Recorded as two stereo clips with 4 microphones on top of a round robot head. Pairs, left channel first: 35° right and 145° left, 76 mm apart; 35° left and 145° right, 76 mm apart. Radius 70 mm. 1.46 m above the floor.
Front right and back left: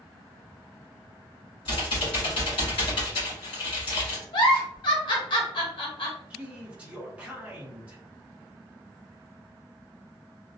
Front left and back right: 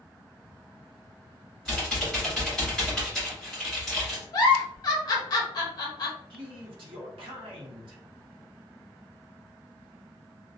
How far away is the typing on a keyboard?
About 1.5 m.